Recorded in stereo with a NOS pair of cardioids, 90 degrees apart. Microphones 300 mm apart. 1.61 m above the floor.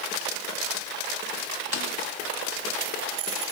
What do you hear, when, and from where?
1.7 s a snare drum: 55° left, 3.5 m